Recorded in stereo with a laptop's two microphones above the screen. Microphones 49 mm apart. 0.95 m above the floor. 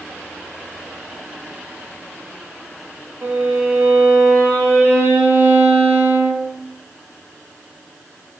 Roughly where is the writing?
No writing in this recording.